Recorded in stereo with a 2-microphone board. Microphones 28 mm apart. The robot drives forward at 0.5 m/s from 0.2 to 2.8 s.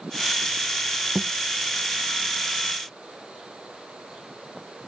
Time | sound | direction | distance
1.1 | a thud | 5° left (ahead or behind) | ?